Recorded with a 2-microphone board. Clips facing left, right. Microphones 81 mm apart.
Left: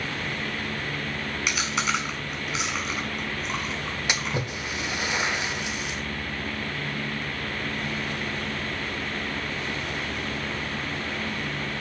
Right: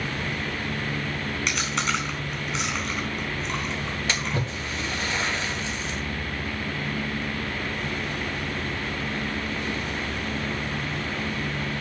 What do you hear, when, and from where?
1.5 s chewing: 5° left (ahead or behind), 3.5 m
4.1 s a splash: 15° left (ahead or behind), 1.2 m